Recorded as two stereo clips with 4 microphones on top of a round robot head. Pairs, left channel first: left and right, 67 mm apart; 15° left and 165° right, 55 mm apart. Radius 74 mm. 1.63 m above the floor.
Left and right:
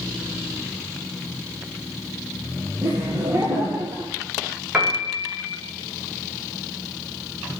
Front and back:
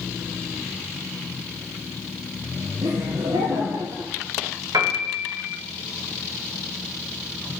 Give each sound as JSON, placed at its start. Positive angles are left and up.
{"t": 2.8, "sound": "laughter", "azimuth_deg": -155, "distance_m": 1.9}
{"t": 4.7, "sound": "a piano", "azimuth_deg": -160, "distance_m": 2.5}